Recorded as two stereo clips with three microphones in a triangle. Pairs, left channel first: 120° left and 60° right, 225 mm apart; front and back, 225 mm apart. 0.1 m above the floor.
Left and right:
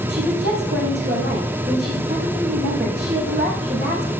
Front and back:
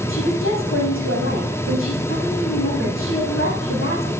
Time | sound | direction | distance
0.1 | a woman speaking | 20° right | 6.5 m